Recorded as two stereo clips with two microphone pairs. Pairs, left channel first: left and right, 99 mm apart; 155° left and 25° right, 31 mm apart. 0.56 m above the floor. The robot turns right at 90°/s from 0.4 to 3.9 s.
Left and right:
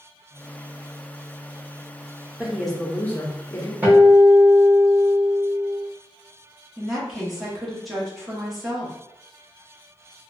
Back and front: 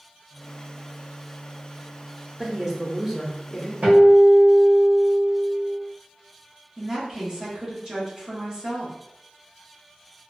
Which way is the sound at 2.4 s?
25° right.